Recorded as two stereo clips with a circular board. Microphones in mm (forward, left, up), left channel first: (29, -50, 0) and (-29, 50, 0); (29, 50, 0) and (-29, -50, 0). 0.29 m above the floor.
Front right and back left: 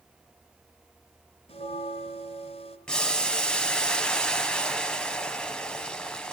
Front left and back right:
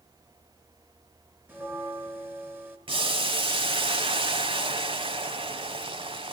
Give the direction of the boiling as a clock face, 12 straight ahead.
5 o'clock.